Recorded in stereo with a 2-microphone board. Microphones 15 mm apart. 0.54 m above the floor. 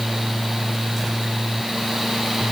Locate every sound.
Only background noise.